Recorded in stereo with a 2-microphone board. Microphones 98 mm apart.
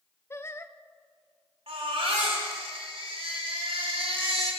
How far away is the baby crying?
About 3.5 m.